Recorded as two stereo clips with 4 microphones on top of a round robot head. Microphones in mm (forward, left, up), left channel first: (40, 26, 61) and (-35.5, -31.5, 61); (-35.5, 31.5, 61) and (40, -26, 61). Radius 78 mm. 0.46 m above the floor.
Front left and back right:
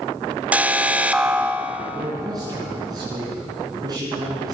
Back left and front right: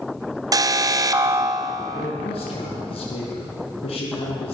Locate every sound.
0.5 s an alarm: 75° right, 1.6 m
1.9 s a man speaking: 165° left, 7 m